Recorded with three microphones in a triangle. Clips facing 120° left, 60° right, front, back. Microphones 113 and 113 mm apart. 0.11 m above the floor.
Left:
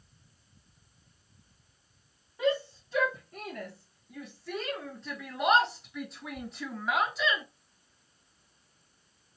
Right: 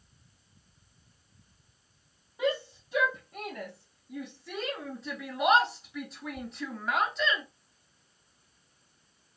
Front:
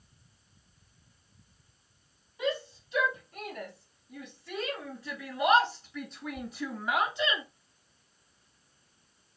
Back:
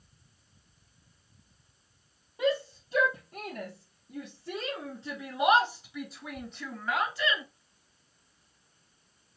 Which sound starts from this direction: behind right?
A shout, at 2.4 s.